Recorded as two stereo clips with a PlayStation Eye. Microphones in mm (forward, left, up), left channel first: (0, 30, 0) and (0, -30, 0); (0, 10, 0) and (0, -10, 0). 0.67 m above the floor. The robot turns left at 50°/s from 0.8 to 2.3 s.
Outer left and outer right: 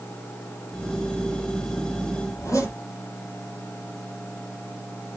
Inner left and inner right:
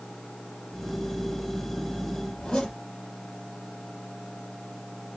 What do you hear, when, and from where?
2.3 s a zipper: 60° left (ahead or behind), 6 m